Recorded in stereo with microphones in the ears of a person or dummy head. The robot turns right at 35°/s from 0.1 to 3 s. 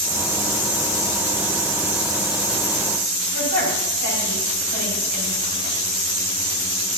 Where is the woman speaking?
65° right (ahead or behind), 4.5 m.